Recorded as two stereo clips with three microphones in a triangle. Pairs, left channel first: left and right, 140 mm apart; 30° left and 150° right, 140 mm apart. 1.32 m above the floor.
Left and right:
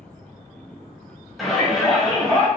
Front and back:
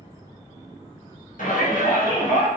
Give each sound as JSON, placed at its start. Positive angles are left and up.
{"t": 1.4, "sound": "a shout", "azimuth_deg": 0, "distance_m": 1.0}